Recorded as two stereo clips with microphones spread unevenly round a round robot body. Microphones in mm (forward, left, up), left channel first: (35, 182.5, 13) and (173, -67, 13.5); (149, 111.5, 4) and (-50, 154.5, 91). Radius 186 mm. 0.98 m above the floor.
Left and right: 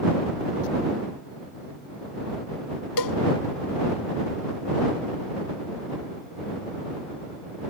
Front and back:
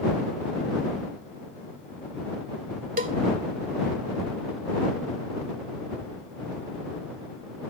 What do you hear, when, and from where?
3.0 s a cowbell: 125° left